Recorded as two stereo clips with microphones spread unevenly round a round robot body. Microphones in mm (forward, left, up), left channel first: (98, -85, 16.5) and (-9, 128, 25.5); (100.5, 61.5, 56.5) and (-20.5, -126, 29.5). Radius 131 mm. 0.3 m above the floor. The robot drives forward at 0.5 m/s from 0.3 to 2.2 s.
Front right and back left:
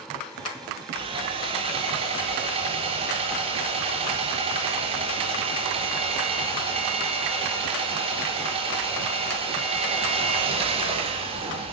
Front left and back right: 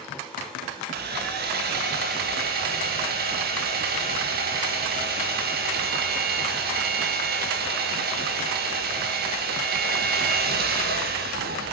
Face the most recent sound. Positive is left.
turn(degrees=-175)